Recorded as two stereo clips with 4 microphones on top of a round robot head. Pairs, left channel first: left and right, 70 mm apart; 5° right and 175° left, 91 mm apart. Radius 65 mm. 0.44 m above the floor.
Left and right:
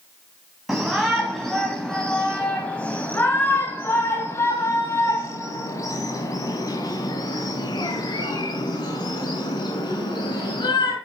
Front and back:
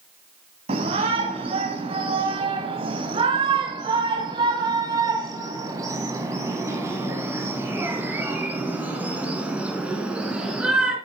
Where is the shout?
175° right, 3 m; by 10.9 s 95° left, 4.5 m.